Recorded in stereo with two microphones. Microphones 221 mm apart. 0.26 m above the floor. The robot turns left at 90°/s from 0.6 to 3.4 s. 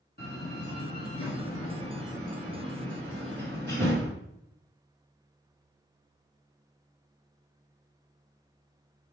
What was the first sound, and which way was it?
A door slam, 45° left (ahead or behind).